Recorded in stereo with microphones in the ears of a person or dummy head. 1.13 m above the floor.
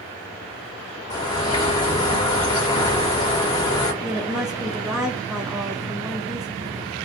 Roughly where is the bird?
Centre.